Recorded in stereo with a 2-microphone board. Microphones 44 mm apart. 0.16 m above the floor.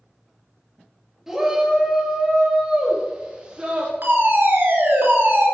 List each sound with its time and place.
1.3 s a shout: 10° right (ahead or behind), 4 m; by 3.9 s 25° right (ahead or behind), 5 m
4.0 s a fire alarm: 55° right (ahead or behind), 4 m